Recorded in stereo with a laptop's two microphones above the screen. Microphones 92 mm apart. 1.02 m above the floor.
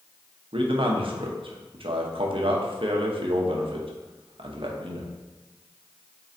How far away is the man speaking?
About 0.7 m.